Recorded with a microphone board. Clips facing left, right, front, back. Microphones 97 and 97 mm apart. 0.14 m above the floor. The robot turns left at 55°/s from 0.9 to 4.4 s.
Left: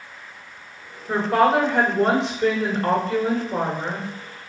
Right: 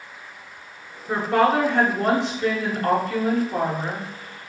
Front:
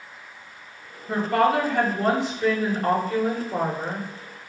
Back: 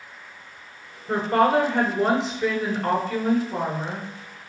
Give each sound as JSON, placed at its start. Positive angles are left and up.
{"t": 1.1, "sound": "a woman speaking", "azimuth_deg": -165, "distance_m": 1.9}